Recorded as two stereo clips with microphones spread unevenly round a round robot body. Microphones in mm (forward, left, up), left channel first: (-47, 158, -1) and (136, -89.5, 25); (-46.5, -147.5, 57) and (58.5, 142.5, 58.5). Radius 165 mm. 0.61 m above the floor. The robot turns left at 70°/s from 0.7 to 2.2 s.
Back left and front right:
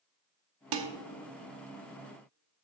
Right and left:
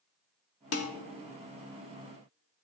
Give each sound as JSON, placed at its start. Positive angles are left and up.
{"t": 0.7, "sound": "dishes clattering", "azimuth_deg": -65, "distance_m": 1.0}